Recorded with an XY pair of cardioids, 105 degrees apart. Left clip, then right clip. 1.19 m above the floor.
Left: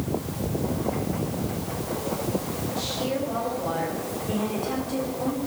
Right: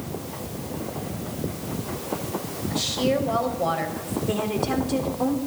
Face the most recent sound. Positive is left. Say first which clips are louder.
# right 4 dB
turn(degrees=-55)